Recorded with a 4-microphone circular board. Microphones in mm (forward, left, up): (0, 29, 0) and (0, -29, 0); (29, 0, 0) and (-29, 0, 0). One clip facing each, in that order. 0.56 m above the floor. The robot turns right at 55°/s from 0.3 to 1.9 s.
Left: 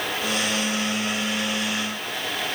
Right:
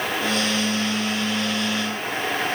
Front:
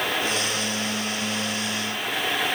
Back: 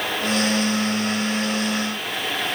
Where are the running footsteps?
I don't hear running footsteps.